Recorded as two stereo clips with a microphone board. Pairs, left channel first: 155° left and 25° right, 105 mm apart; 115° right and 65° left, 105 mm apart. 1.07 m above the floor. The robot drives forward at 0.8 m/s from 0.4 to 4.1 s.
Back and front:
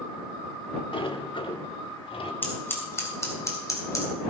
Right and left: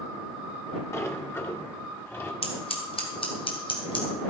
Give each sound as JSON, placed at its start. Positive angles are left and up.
{"t": 0.9, "sound": "a sliding door", "azimuth_deg": -175, "distance_m": 1.1}
{"t": 2.4, "sound": "scissors", "azimuth_deg": -130, "distance_m": 3.0}